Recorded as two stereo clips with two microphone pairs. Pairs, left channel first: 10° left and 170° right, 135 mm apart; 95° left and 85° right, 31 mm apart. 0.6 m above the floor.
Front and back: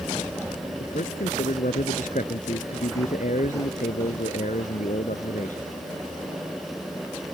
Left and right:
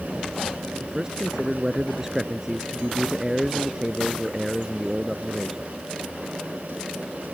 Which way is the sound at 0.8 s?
10° right.